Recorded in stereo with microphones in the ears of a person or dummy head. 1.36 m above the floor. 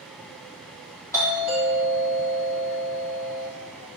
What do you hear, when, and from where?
1.1 s a doorbell: 15° left (ahead or behind), 1.6 m